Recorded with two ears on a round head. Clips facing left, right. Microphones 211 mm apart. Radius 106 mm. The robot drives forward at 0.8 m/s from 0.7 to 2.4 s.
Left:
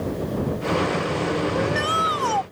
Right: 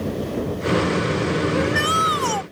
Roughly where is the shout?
Right.